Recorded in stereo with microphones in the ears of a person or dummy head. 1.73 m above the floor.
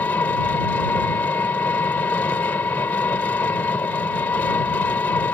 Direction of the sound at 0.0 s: 15° left (ahead or behind).